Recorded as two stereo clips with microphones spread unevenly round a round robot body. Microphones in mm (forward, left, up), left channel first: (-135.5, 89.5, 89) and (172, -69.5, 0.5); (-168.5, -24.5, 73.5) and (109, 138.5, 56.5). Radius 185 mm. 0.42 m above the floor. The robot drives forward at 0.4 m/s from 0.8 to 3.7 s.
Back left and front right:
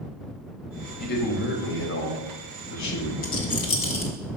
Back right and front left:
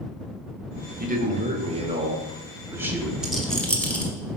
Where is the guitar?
I don't hear a guitar.